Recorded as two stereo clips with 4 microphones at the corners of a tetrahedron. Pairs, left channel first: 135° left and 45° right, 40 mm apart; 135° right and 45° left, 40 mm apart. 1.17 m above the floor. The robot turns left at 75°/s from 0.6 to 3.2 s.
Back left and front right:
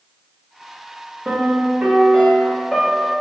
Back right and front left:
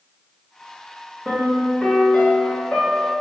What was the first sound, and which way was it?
A piano, 30° right.